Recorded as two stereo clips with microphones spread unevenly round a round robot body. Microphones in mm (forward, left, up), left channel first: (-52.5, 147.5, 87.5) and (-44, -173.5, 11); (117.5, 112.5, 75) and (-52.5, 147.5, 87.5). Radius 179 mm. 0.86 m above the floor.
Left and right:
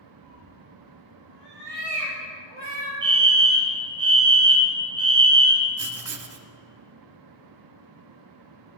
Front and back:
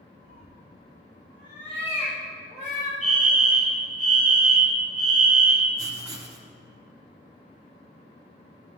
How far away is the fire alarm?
About 2.5 m.